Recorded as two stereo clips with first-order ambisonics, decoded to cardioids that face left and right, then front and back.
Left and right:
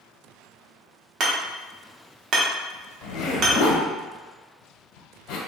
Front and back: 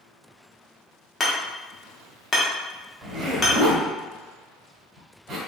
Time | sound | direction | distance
1.2 | hammering | 60° right | 1.1 m
3.0 | a zipper | 115° left | 1.1 m